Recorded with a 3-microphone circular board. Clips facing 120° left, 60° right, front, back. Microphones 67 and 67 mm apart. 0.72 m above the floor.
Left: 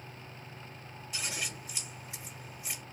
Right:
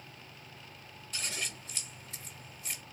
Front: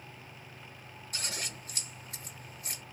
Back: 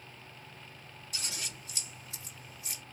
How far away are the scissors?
About 1.6 m.